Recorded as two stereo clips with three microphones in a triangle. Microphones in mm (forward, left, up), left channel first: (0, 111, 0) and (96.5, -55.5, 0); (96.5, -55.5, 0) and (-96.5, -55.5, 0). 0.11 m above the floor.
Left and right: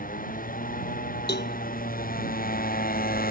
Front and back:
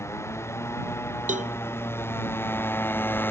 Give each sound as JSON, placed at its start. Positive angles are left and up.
{"t": 0.0, "sound": "a motorcycle", "azimuth_deg": 75}
{"t": 1.3, "sound": "a cowbell", "azimuth_deg": 135}